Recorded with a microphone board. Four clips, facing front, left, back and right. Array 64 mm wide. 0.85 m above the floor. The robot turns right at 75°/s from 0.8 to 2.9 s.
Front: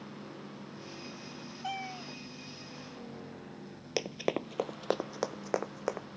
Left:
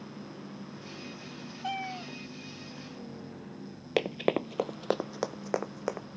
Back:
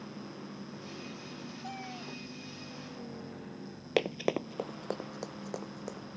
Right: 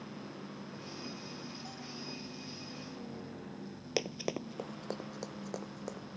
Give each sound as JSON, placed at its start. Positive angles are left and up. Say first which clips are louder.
{"t": 1.6, "sound": "a cat meowing", "louder": "left 10 dB, front 6 dB", "azimuth_deg": 60}
{"t": 4.0, "sound": "running footsteps", "louder": "left 8 dB, back 3 dB", "azimuth_deg": 135}